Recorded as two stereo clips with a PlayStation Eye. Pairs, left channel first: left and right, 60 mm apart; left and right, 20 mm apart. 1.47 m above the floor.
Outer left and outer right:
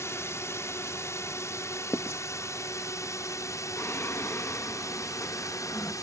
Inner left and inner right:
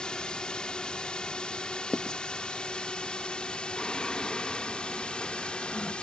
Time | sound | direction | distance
0.0 | a drone | 50° left (ahead or behind) | ?
1.9 | writing | 45° left (ahead or behind) | ?
3.8 | singing | 50° left (ahead or behind) | ?